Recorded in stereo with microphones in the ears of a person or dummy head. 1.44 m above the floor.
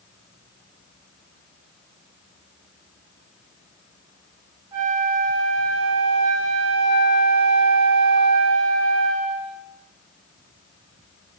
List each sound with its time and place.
4.7 s a flute: 20° right (ahead or behind), 0.7 m